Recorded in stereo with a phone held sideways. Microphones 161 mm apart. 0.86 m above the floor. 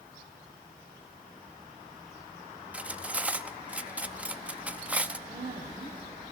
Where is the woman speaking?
80° right, 4 m.